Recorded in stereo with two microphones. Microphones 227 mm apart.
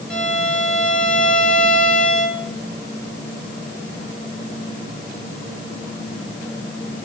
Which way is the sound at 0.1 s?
5° left (ahead or behind).